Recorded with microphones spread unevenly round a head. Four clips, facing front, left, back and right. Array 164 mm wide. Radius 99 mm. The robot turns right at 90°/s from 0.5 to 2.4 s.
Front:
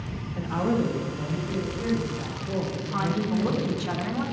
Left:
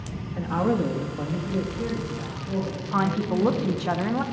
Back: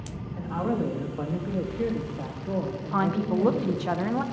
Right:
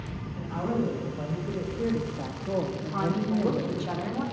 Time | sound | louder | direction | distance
0.4 | a woman speaking | left 5 dB, front 2 dB | 60° left | 1.4 m
2.9 | a woman speaking | left 4 dB, back 2 dB | 110° left | 0.7 m